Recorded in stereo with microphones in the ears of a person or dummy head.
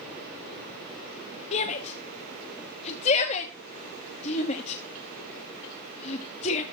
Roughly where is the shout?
Left.